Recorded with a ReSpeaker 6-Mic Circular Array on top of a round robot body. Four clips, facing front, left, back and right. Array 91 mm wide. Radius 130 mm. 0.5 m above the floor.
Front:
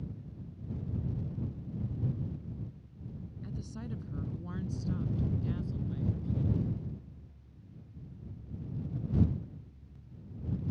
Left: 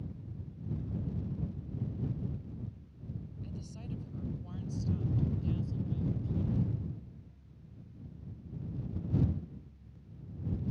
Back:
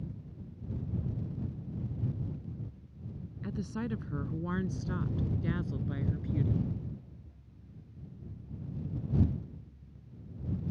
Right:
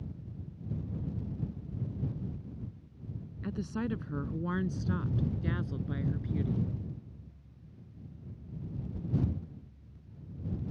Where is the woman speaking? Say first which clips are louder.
Right 14 dB, back 8 dB; 120° right; by 6.7 s 125° right.